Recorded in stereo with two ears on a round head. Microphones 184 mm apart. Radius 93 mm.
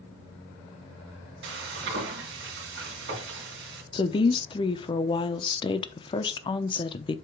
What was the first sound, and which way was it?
Frying, 60° right (ahead or behind).